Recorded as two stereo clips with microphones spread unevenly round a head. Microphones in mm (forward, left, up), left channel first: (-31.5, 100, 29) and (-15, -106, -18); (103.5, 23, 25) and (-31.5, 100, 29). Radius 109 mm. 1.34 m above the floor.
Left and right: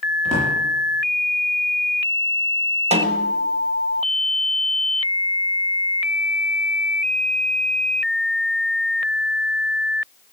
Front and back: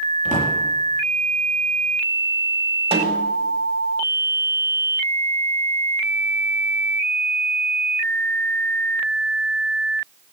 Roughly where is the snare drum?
Behind right.